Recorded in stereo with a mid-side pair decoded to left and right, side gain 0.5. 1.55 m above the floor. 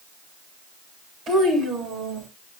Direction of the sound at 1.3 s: 55° right.